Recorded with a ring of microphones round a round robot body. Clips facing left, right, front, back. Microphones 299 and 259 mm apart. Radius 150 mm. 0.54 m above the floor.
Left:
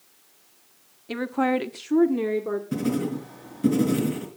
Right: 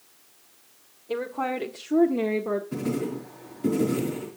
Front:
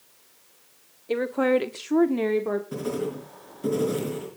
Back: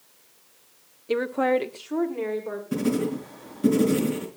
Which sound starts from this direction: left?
A woman speaking, at 1.1 s.